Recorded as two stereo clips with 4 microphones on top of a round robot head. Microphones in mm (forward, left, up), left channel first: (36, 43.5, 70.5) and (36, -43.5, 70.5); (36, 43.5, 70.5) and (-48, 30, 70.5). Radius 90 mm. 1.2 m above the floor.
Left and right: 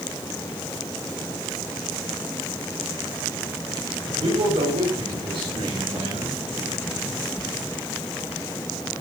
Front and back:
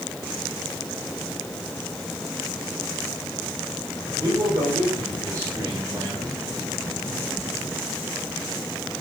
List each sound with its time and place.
4.2 s a man speaking: 115° right, 6.5 m; by 6.4 s 120° right, 8.5 m